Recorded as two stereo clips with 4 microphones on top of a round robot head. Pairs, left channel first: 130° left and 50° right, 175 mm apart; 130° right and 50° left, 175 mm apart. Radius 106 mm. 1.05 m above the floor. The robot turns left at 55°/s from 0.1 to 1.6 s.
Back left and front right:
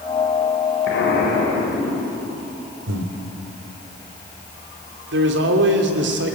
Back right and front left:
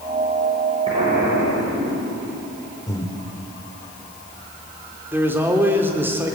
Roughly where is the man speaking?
Ahead right.